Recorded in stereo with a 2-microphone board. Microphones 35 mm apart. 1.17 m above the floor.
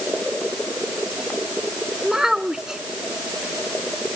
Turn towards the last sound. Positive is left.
turn(degrees=-20)  # may be behind; listen again after turning